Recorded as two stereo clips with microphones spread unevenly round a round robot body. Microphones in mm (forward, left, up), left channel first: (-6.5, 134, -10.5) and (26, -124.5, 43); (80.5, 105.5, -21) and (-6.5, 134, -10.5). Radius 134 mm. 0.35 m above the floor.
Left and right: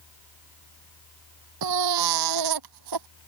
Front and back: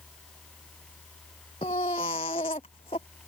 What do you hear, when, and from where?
1.6 s a baby crying: 85° right